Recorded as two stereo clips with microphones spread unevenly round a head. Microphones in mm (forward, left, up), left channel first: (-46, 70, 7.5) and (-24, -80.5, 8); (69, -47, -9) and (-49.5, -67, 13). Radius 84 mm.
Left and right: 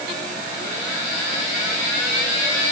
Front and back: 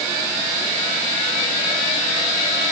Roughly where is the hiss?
No hiss in this recording.